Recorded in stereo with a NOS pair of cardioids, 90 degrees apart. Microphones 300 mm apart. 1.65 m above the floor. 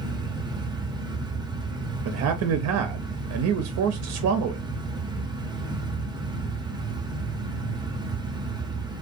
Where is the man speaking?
60° right, 0.6 m.